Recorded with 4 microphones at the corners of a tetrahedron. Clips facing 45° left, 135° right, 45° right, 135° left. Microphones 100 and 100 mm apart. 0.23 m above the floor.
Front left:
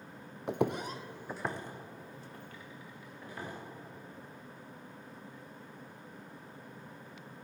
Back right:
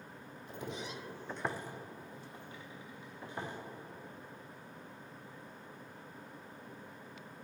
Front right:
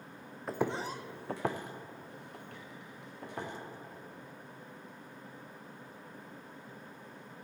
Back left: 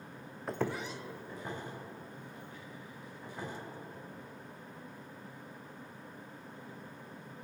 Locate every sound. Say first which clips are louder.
0.5 s footsteps: front left 11 dB, front right 2 dB; 45° left, 0.8 m; by 3.5 s 70° right, 3.5 m